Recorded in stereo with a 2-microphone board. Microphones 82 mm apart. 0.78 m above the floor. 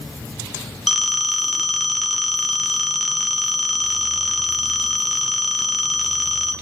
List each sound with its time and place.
0.9 s a phone ringing: centre (ahead or behind), 1.6 m